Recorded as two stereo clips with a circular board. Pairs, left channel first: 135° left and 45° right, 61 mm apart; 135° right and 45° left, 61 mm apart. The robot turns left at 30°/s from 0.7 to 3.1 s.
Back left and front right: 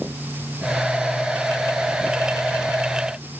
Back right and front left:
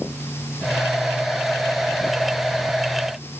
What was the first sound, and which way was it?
Only background noise.